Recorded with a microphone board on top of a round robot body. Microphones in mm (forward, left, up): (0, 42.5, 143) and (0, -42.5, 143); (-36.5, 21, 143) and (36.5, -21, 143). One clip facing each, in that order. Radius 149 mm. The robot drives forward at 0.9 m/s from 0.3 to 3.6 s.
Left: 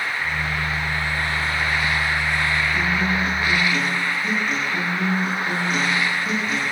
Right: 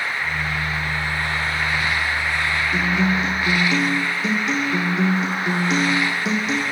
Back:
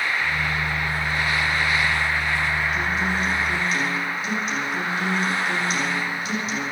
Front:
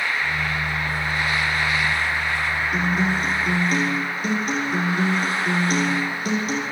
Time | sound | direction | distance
2.7 | a guitar | 70° right | 10 m